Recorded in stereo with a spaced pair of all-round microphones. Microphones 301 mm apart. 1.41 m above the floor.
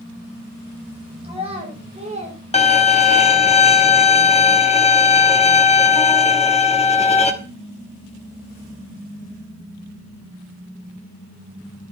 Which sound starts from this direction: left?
A violin, at 2.5 s.